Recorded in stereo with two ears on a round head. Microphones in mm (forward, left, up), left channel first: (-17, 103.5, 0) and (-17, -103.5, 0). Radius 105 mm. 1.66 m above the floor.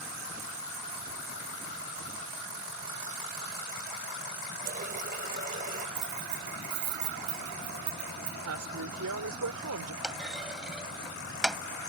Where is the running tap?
35° right (ahead or behind).